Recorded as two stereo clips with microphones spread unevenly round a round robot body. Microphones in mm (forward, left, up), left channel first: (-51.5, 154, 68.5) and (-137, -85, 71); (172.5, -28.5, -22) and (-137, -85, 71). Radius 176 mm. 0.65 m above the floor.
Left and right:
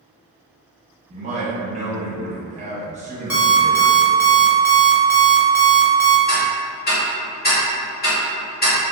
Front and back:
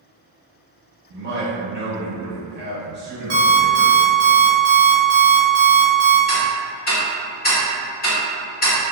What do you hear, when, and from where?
1.1 s a man speaking: 115° right, 1.1 m
3.3 s an alarm clock: 165° left, 1.3 m
6.3 s ticking: 35° left, 1.4 m